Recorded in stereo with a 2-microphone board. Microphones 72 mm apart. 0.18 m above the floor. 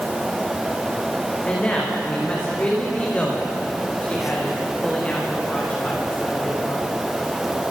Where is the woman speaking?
20° left (ahead or behind), 9.5 m.